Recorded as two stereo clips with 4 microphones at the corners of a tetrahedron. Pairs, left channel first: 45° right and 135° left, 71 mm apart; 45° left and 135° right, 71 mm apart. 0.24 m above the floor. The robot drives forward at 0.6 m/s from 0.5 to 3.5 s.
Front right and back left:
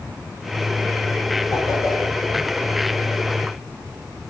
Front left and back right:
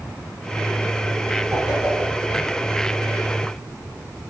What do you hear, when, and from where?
1.5 s a whoosh: 60° right, 4 m; by 2.4 s 70° right, 3.5 m